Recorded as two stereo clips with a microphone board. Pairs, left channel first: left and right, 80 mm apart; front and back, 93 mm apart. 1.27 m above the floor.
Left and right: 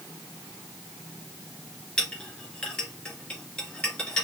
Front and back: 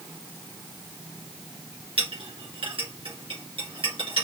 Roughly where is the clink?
Behind.